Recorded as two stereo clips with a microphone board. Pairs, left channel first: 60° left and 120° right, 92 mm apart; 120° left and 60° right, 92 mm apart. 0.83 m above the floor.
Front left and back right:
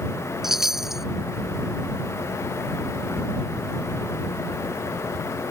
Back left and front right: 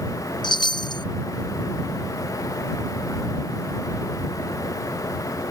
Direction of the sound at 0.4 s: 155° left.